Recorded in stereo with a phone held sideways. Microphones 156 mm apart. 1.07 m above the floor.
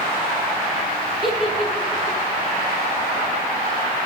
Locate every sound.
1.2 s a giggle: centre (ahead or behind), 1.1 m